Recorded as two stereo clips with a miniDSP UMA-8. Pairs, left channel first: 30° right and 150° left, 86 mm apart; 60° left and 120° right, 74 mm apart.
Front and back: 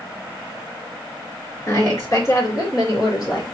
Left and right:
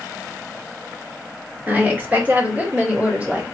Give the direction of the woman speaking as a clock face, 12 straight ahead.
2 o'clock.